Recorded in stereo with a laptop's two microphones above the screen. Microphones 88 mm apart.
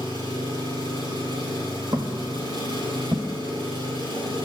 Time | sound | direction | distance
0.0 | an engine running | 65° right (ahead or behind) | 5.5 m
1.9 | footsteps | 50° right (ahead or behind) | 1.9 m